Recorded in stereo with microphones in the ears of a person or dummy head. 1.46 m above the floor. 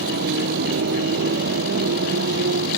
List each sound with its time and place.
0.0 s a motorcycle: 55° right (ahead or behind)